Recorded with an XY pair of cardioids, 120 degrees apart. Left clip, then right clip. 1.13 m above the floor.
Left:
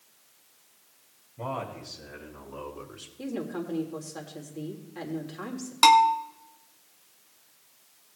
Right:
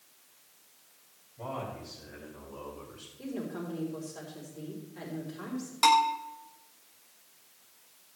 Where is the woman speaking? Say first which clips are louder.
Left 4 dB; 65° left, 3.5 m.